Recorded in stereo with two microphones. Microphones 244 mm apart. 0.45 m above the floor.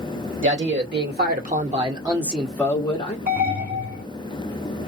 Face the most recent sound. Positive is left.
turn(degrees=-40)  # may be behind; listen again after turning